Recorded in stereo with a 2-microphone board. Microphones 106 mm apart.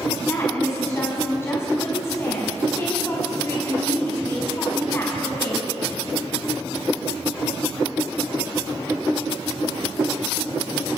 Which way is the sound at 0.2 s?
25° left (ahead or behind).